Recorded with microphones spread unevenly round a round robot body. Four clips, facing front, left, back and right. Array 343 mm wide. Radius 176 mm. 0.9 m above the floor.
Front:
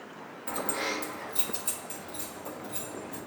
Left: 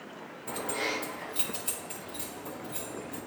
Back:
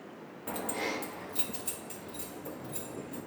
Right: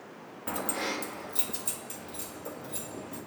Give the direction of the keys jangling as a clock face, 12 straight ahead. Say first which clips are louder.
Even, front 2 dB; 3 o'clock.